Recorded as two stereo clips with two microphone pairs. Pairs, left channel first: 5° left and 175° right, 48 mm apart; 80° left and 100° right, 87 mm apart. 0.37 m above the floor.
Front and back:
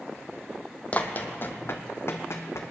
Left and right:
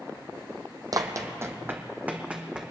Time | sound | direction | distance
0.9 | running footsteps | 55° right | 1.0 m